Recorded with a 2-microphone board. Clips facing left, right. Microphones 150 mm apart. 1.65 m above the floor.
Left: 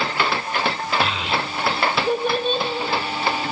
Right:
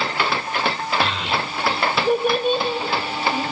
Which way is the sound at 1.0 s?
5° left (ahead or behind).